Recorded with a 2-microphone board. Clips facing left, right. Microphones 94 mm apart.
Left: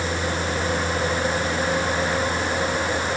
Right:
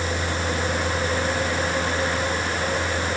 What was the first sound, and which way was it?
Only background noise.